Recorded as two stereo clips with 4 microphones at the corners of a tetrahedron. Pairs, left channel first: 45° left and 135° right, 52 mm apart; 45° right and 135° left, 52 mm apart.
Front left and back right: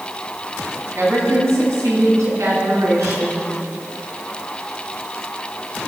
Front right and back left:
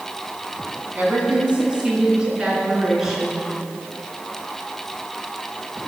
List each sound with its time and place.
0.9 s a woman speaking: 165° right, 3.5 m; by 3.4 s 140° right, 5.5 m